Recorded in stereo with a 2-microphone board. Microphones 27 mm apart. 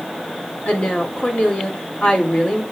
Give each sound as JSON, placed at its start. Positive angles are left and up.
{"t": 0.7, "sound": "a woman speaking", "side_deg": 60, "distance_m": 3.0}